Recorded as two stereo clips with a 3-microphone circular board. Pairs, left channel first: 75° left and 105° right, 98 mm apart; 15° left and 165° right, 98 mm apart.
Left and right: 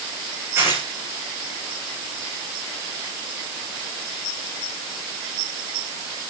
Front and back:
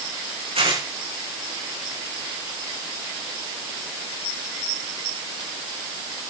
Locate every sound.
0.6 s tearing paper: 170° right, 7.5 m